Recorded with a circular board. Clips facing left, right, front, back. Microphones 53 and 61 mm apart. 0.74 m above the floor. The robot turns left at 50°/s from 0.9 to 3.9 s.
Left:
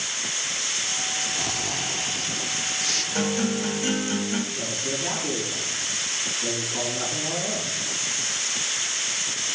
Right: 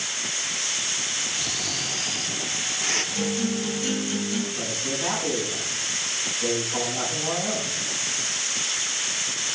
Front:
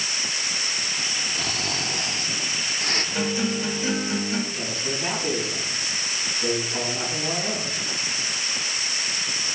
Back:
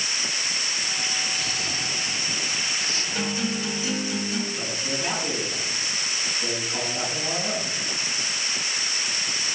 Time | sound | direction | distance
1.4 | snoring | 45° left | 0.5 m
3.1 | a guitar | 75° left | 1.4 m
4.5 | a man speaking | 85° right | 5.5 m